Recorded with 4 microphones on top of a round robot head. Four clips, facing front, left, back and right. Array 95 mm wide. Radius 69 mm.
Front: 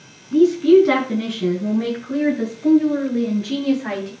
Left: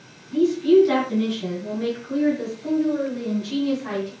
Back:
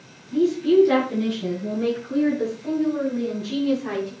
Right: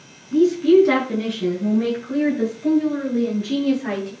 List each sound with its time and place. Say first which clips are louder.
0.3 s a woman speaking: right 2 dB, front 5 dB; 35° right, 6.5 m; by 4.1 s 45° right, 9 m